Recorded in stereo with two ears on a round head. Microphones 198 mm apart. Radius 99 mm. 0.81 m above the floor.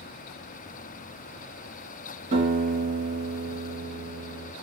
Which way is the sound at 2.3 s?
25° right (ahead or behind).